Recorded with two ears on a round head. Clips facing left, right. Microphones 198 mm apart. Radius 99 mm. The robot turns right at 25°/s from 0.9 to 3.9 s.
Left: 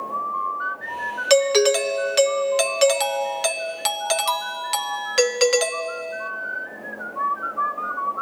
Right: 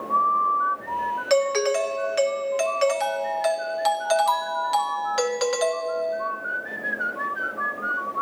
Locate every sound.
1.3 s a doorbell: 65° left, 0.8 m; by 6.3 s 130° left, 0.8 m